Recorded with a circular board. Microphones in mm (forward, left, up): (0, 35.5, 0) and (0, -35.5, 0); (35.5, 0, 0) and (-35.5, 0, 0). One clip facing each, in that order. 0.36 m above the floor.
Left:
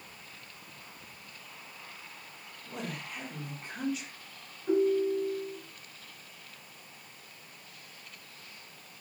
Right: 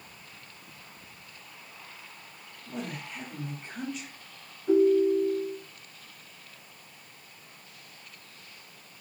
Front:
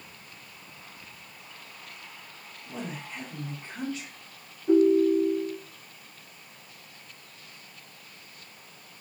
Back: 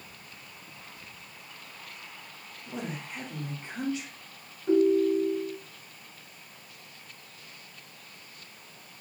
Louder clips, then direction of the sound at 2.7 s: Right 2 dB, back 1 dB; 170° left.